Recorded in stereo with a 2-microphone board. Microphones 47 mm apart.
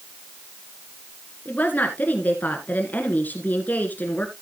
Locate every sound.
1.4 s a woman speaking: 40° left (ahead or behind), 1.6 m